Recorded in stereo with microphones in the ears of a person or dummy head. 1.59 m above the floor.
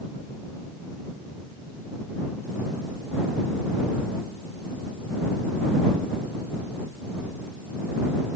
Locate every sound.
Only background noise.